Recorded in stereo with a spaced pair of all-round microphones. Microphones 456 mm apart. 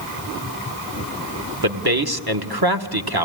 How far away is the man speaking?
About 1.3 m.